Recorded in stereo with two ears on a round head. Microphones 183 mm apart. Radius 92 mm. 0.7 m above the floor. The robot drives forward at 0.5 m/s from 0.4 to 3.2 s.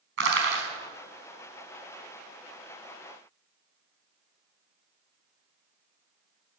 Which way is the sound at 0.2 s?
65° right (ahead or behind).